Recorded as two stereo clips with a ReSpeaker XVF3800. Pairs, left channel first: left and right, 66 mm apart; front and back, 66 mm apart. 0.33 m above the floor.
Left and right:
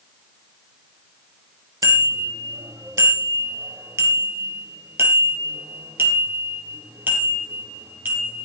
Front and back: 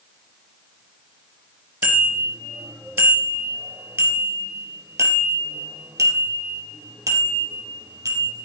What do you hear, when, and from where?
1.8 s a bicycle bell: 120° right, 4.5 m; by 8.4 s 155° right, 6.5 m